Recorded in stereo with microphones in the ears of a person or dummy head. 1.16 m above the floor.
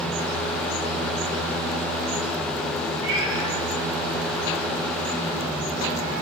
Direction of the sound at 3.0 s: 70° right (ahead or behind).